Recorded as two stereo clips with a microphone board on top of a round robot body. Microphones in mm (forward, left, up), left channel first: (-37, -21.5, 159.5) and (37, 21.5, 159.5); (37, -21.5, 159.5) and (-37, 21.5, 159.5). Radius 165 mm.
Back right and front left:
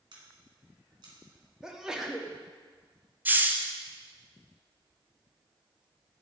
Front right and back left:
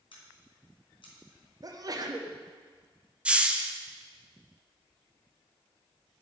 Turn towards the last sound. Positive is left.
turn(degrees=80)